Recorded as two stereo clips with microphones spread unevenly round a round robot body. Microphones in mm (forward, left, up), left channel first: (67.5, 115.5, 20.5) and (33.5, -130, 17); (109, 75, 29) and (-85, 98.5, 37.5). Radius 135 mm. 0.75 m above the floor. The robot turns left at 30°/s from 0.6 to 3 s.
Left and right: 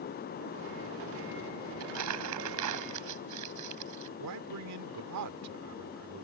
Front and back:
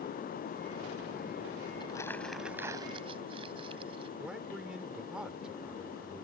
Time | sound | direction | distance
1.8 | crumpling | 80° right | ?
4.2 | a man speaking | 100° right | ?